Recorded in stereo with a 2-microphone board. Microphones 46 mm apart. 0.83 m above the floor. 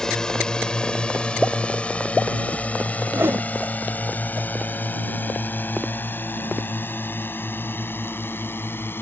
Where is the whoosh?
60° right (ahead or behind).